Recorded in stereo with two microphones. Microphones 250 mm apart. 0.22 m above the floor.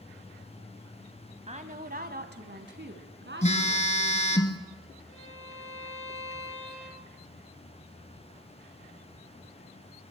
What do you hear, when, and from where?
1.5 s a woman speaking: 25° right (ahead or behind), 1.2 m; by 4.4 s 50° right (ahead or behind), 3 m
3.4 s a phone buzzing: 25° left (ahead or behind), 1.5 m
5.1 s a violin: 55° left (ahead or behind), 3.5 m